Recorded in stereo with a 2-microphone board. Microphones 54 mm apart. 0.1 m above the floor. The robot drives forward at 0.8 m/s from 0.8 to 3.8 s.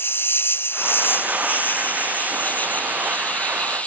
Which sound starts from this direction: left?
An insect, at 0.0 s.